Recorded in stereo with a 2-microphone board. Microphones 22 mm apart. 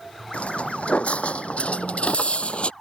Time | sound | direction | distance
0.3 | footsteps | 75° left (ahead or behind) | ?